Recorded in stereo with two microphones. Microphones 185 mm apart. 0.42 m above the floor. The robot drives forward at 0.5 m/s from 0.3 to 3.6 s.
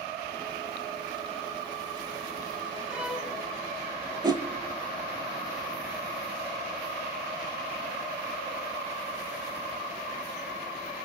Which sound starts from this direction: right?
A whoosh, at 4.2 s.